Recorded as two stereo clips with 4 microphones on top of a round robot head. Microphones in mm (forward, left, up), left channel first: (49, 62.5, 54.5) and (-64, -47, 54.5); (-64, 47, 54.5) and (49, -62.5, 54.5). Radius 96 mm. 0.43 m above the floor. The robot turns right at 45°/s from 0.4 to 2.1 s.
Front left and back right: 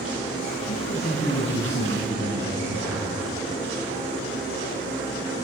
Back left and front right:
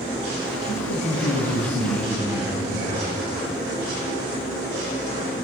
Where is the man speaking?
95° left, 6 m; by 3.1 s 160° left, 6 m.